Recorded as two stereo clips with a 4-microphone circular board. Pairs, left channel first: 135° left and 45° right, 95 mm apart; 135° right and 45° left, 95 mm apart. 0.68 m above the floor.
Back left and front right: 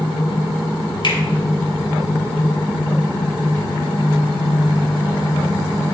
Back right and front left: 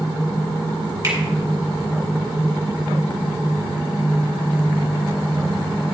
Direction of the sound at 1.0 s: 105° left.